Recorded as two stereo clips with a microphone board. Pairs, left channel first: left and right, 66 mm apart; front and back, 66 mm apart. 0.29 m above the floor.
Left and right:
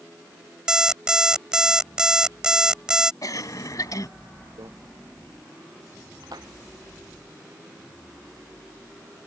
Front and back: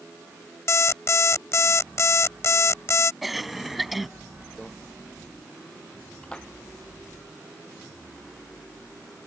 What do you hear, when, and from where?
0.7 s an alarm clock: 15° right
3.2 s a cough: 90° left
4.6 s a microwave: 85° right
6.2 s a splash: 75° right